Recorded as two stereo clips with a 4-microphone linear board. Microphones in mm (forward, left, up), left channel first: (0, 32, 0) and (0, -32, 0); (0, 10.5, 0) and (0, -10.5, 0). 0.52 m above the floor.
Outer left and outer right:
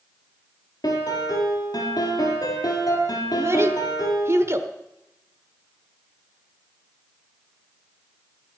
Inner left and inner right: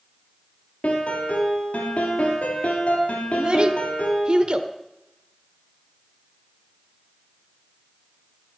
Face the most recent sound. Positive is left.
turn(degrees=-45)  # may be behind; listen again after turning